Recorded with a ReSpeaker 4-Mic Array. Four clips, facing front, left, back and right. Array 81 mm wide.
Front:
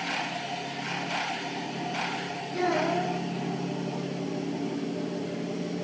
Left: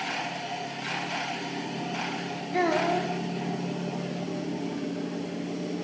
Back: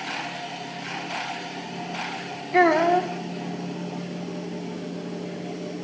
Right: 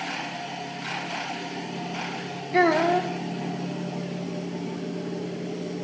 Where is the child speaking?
160° right, 3 m.